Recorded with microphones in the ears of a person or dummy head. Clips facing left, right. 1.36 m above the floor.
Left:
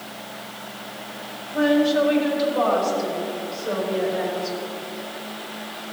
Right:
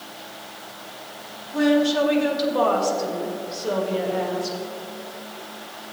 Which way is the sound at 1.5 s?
85° right.